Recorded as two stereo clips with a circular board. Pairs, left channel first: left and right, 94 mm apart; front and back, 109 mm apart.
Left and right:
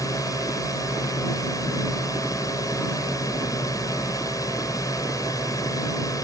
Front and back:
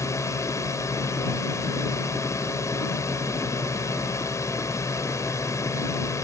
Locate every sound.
0.0 s a drone: 55° left